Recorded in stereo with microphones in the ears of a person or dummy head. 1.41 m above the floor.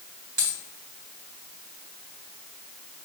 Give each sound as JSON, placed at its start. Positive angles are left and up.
{"t": 0.4, "sound": "a dropped coin", "side_deg": -65, "distance_m": 3.0}